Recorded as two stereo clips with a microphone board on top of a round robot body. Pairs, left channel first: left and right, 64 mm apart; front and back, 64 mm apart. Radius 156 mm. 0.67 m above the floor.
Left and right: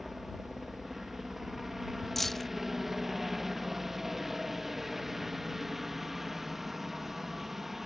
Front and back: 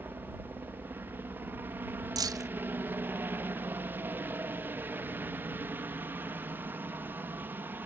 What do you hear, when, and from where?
0.0 s a helicopter: 170° right
2.2 s keys jangling: 175° left